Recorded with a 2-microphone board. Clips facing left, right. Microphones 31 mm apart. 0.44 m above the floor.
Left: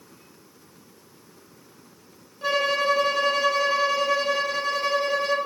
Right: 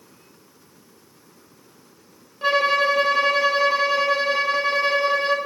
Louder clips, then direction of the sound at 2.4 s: Right 4 dB; 30° right (ahead or behind).